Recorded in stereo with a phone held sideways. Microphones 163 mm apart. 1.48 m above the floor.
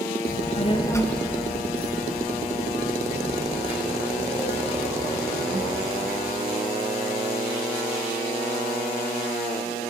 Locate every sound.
0.3 s a child speaking: 60° left (ahead or behind), 1.1 m; by 6.0 s 40° right (ahead or behind), 6.5 m